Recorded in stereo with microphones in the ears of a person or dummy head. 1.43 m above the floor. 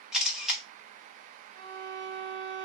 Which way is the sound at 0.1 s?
5° left (ahead or behind).